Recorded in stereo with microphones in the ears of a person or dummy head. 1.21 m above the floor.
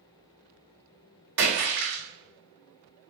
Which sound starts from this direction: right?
A splash, at 1.4 s.